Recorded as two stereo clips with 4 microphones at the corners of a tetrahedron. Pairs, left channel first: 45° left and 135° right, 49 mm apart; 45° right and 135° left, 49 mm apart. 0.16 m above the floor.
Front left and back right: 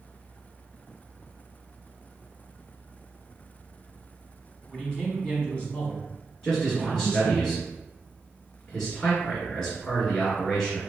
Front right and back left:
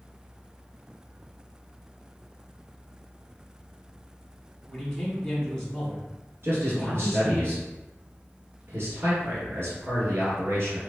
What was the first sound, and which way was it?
A man speaking, 15° left.